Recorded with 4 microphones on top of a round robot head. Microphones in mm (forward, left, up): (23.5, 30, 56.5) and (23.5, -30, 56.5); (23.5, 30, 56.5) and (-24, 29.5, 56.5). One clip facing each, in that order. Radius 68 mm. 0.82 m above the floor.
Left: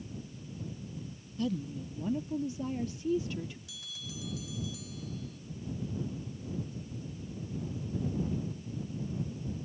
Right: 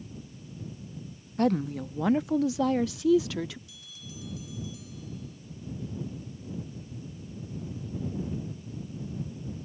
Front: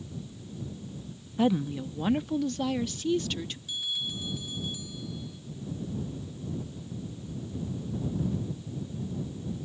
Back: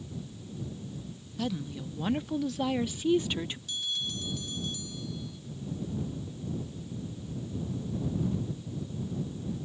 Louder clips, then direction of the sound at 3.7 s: Left 2 dB, front 3 dB; 85° left.